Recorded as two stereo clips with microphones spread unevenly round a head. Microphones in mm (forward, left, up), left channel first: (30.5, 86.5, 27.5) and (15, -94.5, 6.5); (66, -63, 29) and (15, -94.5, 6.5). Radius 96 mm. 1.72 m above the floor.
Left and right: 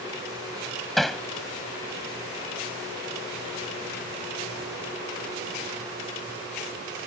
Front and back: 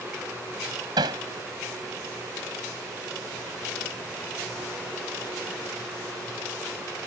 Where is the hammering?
170° left.